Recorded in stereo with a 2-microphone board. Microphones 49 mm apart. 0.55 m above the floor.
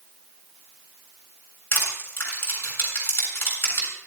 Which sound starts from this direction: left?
Crushing, at 1.7 s.